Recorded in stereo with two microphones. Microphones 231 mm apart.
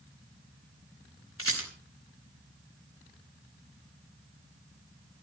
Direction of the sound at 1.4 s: 65° left (ahead or behind).